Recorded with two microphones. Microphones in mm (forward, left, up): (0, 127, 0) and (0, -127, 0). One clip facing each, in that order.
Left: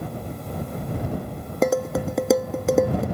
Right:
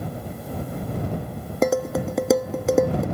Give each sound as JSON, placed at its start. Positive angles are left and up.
{"t": 1.6, "sound": "dishes clattering", "side_deg": 0}